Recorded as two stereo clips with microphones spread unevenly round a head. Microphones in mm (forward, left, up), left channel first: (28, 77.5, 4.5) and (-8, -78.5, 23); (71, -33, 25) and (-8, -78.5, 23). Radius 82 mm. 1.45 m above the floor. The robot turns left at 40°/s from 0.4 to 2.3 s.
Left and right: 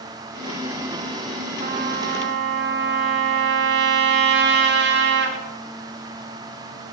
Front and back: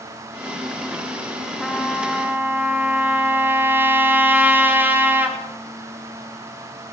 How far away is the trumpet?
About 4.5 m.